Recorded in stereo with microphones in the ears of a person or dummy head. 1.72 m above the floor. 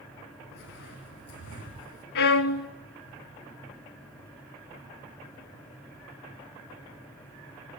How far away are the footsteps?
About 5 m.